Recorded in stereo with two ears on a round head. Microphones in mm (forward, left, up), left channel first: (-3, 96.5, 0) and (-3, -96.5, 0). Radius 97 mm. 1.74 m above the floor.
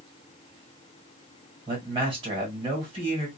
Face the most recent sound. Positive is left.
turn(degrees=-25)  # may be behind; listen again after turning